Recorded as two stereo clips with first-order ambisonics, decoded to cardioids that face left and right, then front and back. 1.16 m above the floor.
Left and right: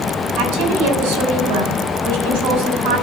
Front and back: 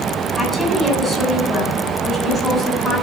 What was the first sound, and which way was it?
A woman speaking, 80° right.